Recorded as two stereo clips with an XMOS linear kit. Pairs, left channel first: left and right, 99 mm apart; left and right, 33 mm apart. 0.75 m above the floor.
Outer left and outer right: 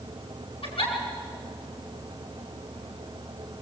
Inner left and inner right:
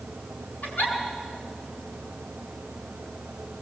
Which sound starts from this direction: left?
A giggle, at 0.6 s.